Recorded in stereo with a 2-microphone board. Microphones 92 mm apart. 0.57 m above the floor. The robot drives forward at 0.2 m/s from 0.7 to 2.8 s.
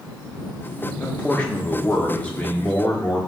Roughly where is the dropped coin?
No dropped coin in this recording.